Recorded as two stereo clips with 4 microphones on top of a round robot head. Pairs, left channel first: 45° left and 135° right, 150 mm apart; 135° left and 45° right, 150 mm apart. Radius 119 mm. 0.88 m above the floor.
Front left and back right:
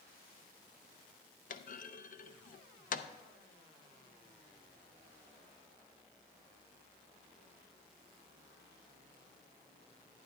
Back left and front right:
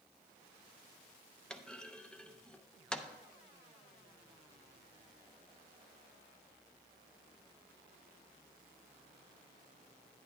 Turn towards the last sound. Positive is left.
turn(degrees=50)